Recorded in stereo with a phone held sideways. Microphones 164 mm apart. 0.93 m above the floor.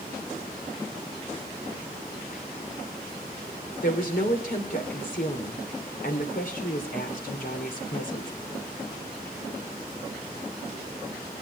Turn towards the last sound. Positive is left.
turn(degrees=60)  # may be behind; listen again after turning